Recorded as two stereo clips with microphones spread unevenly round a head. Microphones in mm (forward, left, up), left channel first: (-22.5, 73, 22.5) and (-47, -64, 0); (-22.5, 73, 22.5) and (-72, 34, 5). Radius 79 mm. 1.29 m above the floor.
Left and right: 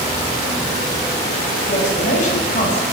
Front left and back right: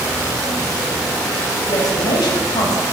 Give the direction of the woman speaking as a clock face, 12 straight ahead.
11 o'clock.